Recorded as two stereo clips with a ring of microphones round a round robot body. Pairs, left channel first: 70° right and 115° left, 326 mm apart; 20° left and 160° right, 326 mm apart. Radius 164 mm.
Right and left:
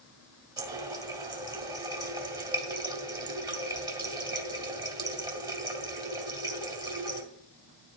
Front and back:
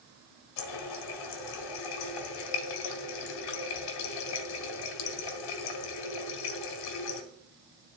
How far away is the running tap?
About 1.7 m.